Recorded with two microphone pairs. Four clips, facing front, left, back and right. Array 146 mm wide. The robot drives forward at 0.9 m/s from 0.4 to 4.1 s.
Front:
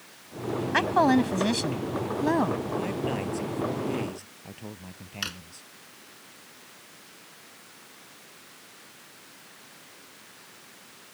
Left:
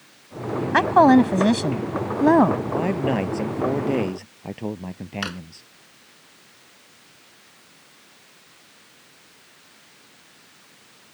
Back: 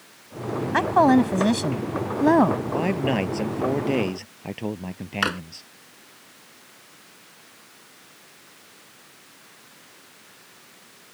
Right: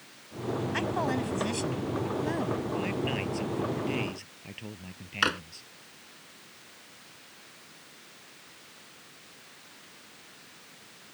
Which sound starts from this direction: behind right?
A drawer, at 5.2 s.